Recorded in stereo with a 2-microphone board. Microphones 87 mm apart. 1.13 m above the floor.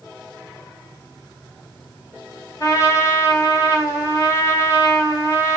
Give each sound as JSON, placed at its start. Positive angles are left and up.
{"t": 2.6, "sound": "a trumpet", "side_deg": 35, "distance_m": 1.8}